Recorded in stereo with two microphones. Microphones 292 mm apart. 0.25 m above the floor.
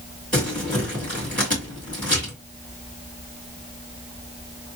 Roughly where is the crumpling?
Left.